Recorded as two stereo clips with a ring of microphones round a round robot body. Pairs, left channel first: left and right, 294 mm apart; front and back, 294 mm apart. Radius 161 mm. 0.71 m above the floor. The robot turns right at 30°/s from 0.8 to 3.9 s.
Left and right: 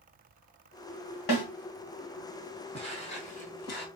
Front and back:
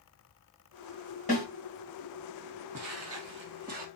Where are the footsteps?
155° left, 1.1 m; by 3.9 s 130° left, 0.9 m.